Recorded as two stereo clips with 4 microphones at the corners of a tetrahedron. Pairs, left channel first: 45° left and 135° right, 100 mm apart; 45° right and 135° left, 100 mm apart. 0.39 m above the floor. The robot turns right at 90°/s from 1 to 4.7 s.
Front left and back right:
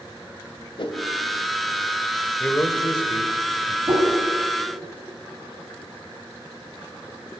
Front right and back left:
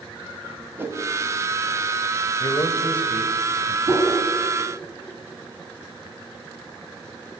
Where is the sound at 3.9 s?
Straight behind, 3 m; by 4.1 s 155° right, 3 m.